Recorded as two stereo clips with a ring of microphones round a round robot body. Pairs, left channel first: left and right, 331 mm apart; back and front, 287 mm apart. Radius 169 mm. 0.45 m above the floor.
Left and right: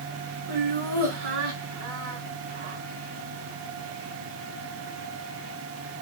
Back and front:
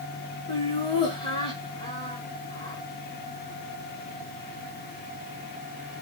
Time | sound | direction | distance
0.5 | laughter | 105° right | 5.5 m